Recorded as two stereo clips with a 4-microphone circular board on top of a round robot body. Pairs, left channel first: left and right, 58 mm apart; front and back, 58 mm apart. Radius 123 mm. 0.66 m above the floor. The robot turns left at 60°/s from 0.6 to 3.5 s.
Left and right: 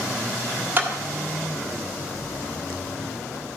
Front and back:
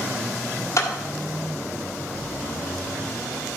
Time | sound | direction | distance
0.8 | a clap | 35° right | 1.6 m